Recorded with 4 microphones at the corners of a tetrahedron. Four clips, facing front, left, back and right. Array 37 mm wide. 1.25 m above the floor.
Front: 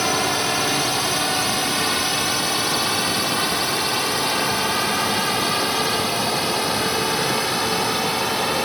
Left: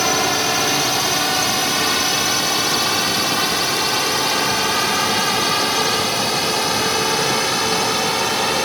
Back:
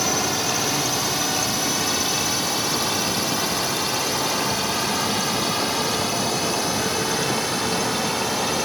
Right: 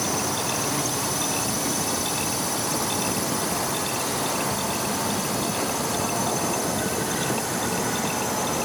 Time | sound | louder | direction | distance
0.0 | a drone | left 8 dB, front 2 dB | 65° left | ?